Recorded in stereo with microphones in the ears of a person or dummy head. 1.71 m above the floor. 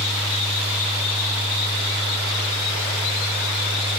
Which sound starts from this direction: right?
A fan, at 0.0 s.